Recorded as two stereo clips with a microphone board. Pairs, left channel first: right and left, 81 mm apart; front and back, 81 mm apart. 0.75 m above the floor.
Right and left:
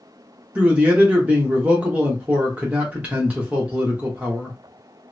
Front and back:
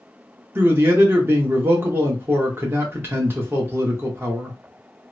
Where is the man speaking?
150° left, 1.0 m.